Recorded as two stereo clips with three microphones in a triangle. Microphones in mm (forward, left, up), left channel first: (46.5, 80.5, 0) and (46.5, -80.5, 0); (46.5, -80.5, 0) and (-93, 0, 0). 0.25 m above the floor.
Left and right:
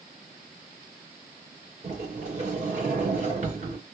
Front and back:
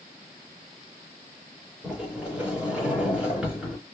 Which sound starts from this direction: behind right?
A sliding door, at 1.8 s.